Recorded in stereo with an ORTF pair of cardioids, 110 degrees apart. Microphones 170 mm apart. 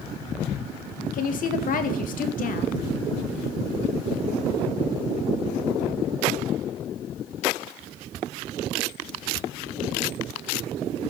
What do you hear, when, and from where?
1.1 s a woman speaking: 55° left, 2.5 m